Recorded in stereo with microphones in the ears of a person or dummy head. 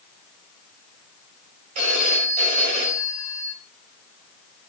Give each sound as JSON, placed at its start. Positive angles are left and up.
{"t": 1.8, "sound": "a phone ringing", "side_deg": -40, "distance_m": 5.5}